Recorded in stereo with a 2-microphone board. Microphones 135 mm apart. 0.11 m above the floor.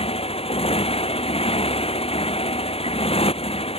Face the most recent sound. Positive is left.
turn(degrees=45)  # may be behind; listen again after turning